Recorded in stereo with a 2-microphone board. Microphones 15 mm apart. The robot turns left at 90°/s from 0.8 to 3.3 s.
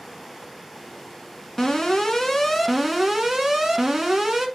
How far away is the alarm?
About 1.5 m.